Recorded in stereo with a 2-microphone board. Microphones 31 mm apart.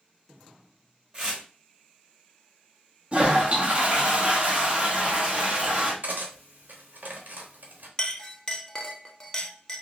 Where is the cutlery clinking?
65° right (ahead or behind), 1.0 m.